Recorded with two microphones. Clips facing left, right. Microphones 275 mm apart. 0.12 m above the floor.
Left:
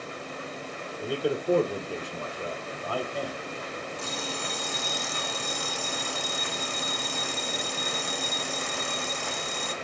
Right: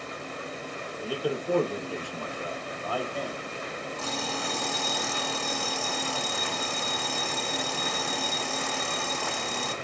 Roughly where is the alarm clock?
Right.